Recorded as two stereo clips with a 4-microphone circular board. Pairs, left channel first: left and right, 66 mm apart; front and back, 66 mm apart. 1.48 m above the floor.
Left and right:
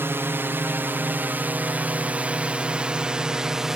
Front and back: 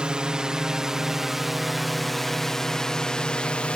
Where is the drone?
110° right; by 3.8 s 25° right.